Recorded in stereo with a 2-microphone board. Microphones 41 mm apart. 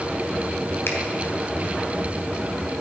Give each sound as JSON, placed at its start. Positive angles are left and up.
{"t": 0.9, "sound": "a finger snap", "side_deg": 65, "distance_m": 3.0}